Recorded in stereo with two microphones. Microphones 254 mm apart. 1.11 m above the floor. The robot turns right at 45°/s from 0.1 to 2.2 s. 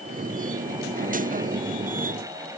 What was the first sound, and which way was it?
Only background noise.